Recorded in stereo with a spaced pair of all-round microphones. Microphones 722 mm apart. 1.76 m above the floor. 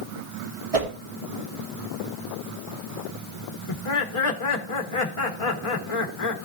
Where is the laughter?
45° left (ahead or behind), 1.1 m.